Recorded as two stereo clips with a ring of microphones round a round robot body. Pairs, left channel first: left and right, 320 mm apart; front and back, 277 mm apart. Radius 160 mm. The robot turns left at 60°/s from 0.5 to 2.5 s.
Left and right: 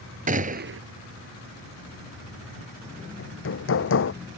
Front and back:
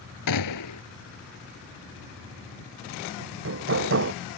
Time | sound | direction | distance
0.3 | a gunshot | 25° right | ?
3.2 | hammering | 140° left | ?